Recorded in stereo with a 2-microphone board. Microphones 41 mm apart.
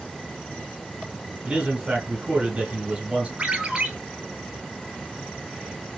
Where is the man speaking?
35° right (ahead or behind), 2.5 m.